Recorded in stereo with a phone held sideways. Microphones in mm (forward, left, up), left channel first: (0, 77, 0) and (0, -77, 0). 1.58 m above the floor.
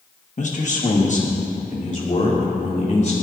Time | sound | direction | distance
0.4 | a man speaking | 50° left (ahead or behind) | 1.8 m